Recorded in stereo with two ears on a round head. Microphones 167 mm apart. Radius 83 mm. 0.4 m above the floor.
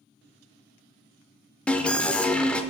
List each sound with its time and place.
1.7 s an alarm: 5° left (ahead or behind), 0.6 m